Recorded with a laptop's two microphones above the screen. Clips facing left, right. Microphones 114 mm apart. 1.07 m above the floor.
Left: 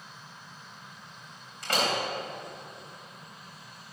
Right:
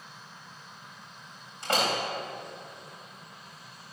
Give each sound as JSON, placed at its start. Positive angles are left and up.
{"t": 1.6, "sound": "a door slam", "side_deg": -25, "distance_m": 3.5}